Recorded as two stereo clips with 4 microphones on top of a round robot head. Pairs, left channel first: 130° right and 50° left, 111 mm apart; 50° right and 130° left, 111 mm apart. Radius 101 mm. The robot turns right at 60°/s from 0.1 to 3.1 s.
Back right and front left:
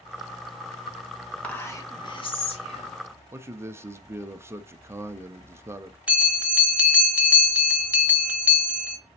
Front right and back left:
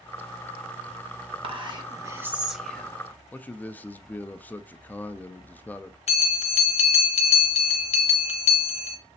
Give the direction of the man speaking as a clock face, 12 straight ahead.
12 o'clock.